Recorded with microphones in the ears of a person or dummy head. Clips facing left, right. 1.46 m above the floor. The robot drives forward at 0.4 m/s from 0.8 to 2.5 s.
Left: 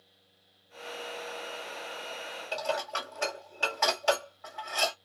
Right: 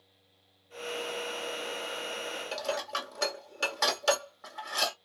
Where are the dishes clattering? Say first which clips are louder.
Left 3 dB; 55° right (ahead or behind), 1.6 m.